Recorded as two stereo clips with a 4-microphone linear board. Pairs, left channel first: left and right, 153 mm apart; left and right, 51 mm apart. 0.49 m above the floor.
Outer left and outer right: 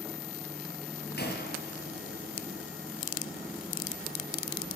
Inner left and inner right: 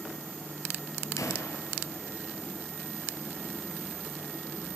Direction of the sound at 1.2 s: 85° left.